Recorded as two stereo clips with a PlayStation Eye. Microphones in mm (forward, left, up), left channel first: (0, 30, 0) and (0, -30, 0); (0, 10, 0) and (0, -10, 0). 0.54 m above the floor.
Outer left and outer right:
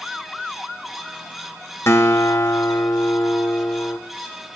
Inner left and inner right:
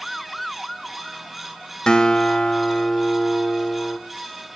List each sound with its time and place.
1.9 s a guitar: 45° left (ahead or behind), 0.9 m